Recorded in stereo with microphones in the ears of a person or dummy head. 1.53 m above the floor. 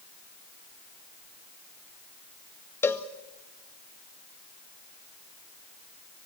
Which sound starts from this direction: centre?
A cowbell, at 2.8 s.